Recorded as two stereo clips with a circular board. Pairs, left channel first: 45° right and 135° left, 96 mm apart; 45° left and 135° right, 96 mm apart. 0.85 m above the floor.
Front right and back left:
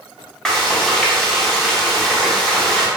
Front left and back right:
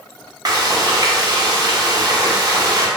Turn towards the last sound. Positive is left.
turn(degrees=-125)